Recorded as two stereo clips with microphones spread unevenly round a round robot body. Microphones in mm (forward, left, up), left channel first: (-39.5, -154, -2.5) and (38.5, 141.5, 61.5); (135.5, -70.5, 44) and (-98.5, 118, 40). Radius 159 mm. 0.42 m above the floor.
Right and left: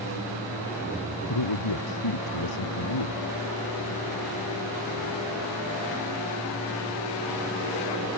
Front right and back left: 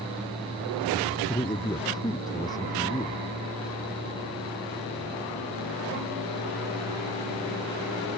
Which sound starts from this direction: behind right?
A man speaking, at 1.3 s.